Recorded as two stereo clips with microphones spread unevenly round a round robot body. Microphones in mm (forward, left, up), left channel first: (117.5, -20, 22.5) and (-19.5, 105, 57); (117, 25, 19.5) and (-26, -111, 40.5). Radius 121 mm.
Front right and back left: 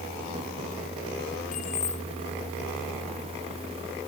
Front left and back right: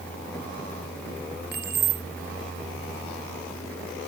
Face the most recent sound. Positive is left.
turn(degrees=-100)